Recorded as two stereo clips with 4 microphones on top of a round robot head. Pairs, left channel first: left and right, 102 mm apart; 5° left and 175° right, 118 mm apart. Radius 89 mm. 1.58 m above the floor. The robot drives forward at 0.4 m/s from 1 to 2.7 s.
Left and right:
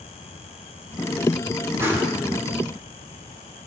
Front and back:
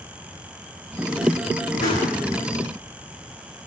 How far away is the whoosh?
About 7.5 m.